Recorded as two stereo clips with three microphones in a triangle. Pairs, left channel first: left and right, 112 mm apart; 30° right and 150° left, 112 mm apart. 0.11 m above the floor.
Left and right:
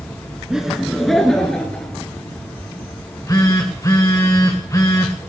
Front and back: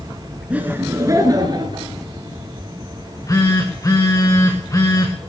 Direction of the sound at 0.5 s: 165° right.